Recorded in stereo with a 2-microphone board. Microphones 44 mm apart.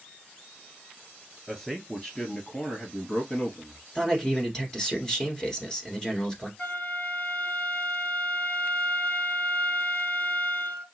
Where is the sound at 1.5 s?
5° left (ahead or behind), 1.5 m; by 3.8 s 35° left (ahead or behind), 2 m.